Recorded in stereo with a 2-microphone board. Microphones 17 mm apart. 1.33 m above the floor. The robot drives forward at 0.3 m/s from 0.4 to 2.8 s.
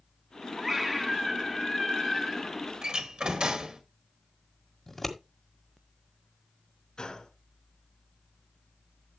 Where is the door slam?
75° right (ahead or behind), 1.5 m.